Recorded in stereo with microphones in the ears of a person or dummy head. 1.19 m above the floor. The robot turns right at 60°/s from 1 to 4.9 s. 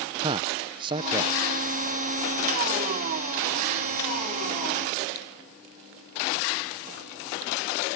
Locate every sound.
0.2 s a man speaking: 25° right (ahead or behind); by 1.3 s 10° right (ahead or behind)